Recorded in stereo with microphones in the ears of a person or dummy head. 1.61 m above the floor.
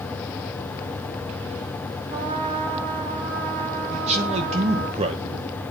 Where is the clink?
No clink in this recording.